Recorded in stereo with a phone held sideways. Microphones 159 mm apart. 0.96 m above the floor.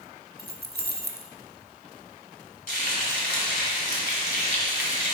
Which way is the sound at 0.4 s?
80° right.